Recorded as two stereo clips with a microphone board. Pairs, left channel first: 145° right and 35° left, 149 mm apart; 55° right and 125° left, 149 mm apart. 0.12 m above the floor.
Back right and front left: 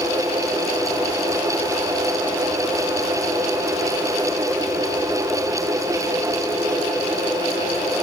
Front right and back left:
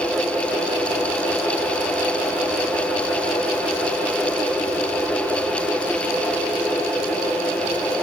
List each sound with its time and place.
Only background noise.